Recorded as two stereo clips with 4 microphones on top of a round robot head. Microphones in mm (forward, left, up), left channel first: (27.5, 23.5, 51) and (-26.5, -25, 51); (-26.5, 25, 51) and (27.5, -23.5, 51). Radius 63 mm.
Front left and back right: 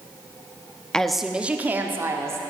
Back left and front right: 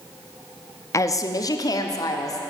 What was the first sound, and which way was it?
A woman speaking, 120° left.